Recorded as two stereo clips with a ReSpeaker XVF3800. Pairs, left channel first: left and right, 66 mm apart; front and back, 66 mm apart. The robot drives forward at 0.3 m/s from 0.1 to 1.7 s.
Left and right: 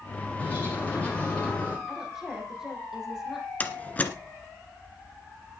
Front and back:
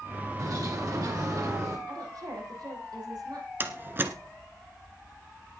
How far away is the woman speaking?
About 6 m.